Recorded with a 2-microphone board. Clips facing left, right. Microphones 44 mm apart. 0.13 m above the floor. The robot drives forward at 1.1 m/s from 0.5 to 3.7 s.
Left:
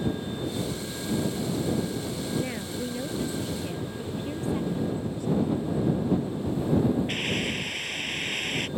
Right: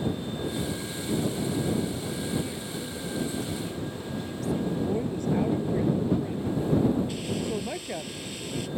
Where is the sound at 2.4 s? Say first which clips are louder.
Left 2 dB; 45° left (ahead or behind); by 4.6 s 30° left (ahead or behind).